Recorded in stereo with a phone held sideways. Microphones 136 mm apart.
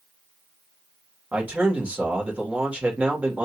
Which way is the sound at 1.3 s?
10° right (ahead or behind).